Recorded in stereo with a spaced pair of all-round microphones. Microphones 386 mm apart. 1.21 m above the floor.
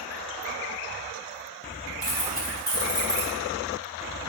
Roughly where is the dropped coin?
Centre.